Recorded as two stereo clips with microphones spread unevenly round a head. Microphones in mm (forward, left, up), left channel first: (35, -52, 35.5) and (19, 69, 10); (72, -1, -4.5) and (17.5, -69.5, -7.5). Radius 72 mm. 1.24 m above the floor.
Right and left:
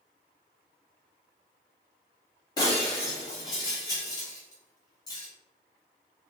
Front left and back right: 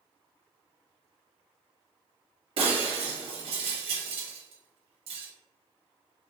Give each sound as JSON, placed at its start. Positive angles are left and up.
{"t": 2.6, "sound": "breaking glass", "azimuth_deg": -145, "distance_m": 0.9}